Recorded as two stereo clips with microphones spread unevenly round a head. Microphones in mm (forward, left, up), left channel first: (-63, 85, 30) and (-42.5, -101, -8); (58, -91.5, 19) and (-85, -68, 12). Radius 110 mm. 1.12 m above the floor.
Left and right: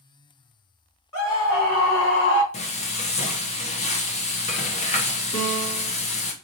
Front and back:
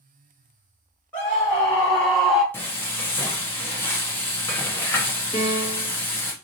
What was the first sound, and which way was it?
A scream, 75° left.